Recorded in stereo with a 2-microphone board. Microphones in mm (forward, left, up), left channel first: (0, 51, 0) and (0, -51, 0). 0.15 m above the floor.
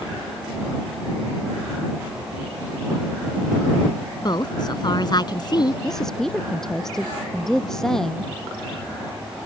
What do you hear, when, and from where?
4.2 s a woman speaking: 45° left (ahead or behind)
5.8 s a woman speaking: 5° left (ahead or behind)